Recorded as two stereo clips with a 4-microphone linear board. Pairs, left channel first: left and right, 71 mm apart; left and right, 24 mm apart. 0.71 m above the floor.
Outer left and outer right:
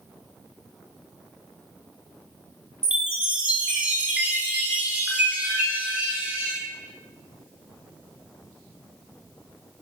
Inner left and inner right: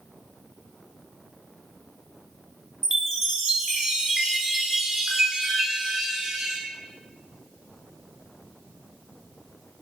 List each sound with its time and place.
2.8 s a chime: 20° right (ahead or behind), 0.6 m